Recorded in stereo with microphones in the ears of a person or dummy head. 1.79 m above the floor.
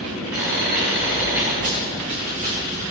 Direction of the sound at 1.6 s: 50° right (ahead or behind).